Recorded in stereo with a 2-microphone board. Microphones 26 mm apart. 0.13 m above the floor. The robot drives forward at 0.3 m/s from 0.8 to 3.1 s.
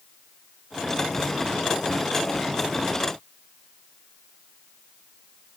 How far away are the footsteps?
No footsteps in this recording.